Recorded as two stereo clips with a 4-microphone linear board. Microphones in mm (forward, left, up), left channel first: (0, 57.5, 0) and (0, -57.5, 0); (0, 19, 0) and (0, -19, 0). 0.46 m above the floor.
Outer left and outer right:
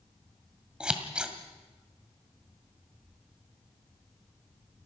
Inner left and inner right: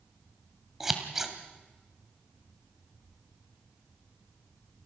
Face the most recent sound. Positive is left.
turn(degrees=-10)  # may be behind; listen again after turning